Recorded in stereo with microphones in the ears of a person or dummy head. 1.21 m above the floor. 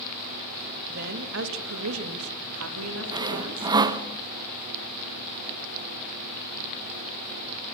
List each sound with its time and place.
0.9 s a woman speaking: 50° right (ahead or behind), 1.9 m; by 3.7 s 70° right (ahead or behind), 3.5 m
3.1 s sawing: 20° right (ahead or behind), 0.9 m